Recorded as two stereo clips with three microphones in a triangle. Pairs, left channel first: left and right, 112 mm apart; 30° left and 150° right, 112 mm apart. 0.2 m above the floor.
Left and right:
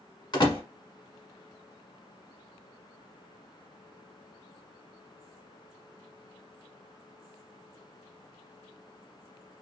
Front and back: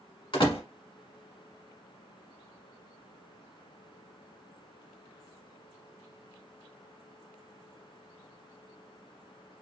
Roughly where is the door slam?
Ahead left.